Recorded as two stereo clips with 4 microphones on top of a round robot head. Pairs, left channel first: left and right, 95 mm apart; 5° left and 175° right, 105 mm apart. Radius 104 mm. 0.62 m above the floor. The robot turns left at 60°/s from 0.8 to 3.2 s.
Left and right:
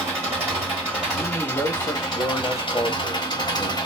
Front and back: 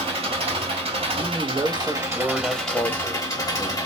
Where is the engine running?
160° right, 1.6 m; by 3.9 s 60° left, 1.6 m.